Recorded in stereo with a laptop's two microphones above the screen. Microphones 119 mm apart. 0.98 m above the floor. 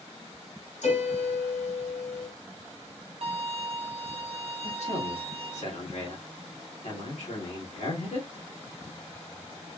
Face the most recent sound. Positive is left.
turn(degrees=70)  # may be behind; listen again after turning